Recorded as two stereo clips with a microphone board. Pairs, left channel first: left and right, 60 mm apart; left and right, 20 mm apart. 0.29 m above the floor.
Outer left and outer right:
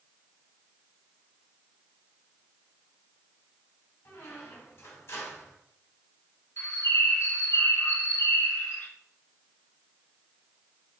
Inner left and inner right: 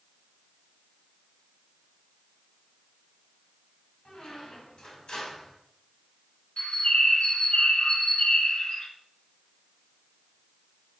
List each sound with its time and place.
4.0 s a squeak: 55° left (ahead or behind), 1.5 m
6.6 s a bird: 65° left (ahead or behind), 1.1 m